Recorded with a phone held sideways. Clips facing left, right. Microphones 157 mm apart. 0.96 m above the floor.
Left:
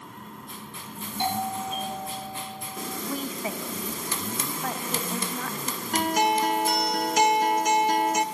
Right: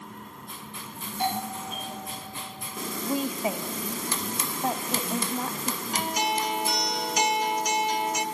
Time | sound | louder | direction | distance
1.2 | a doorbell | left 2 dB | 25° left (ahead or behind) | 9.5 m
3.0 | a woman speaking | right 5 dB | 20° right (ahead or behind) | 1.1 m
5.9 | a guitar | left 6 dB | 55° left (ahead or behind) | 0.8 m